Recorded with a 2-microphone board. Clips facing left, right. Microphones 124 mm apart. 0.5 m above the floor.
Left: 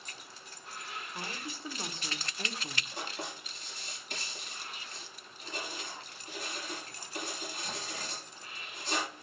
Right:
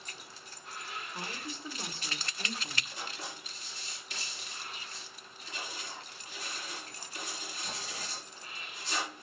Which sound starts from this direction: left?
Writing, at 3.0 s.